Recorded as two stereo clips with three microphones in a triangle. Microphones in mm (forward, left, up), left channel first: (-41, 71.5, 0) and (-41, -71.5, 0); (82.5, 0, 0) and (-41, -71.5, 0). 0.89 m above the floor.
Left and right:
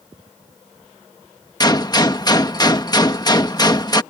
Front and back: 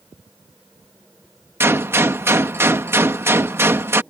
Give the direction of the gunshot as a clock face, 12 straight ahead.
7 o'clock.